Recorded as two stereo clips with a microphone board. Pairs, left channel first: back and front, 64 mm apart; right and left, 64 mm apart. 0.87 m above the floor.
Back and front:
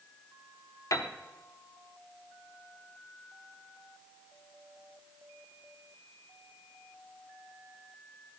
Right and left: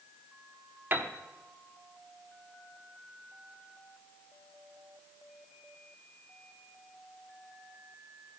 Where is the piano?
145° left, 0.8 m.